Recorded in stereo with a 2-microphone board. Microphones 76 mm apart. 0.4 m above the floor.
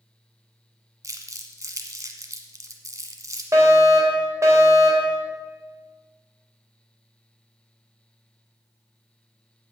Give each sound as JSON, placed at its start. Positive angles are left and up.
{"t": 1.0, "sound": "crumpling", "side_deg": -45, "distance_m": 1.3}
{"t": 3.5, "sound": "a fire alarm", "side_deg": -40, "distance_m": 3.0}